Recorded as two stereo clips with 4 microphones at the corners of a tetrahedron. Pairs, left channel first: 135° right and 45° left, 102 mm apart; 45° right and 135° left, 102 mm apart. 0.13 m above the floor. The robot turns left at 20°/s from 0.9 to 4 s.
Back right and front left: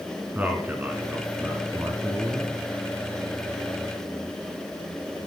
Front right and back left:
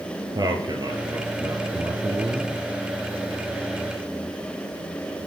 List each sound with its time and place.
0.3 s a man speaking: 110° left, 1.5 m; by 2.6 s 80° left, 1.5 m